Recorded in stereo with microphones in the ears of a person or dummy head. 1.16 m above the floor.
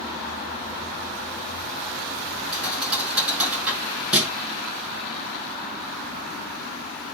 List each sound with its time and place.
2.5 s a thud: 10° right (ahead or behind), 6.5 m